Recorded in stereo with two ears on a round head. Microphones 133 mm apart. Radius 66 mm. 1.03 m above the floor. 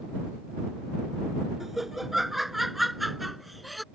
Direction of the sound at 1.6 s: Centre (ahead or behind).